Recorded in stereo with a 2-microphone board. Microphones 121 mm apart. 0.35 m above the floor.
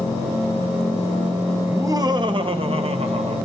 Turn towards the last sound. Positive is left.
turn(degrees=-65)  # may be behind; listen again after turning